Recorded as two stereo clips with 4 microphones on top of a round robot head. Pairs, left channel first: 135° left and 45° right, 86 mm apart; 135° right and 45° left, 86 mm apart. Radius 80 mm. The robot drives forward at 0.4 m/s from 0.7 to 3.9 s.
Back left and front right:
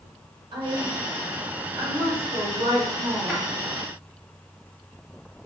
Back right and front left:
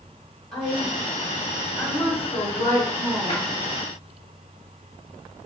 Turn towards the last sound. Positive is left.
turn(degrees=-130)